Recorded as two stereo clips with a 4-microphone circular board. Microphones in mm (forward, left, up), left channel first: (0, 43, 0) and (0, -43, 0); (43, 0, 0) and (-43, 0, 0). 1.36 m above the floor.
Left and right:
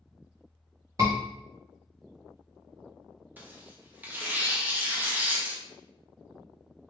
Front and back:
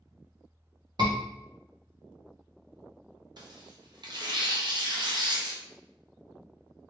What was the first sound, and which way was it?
A scream, 140° right.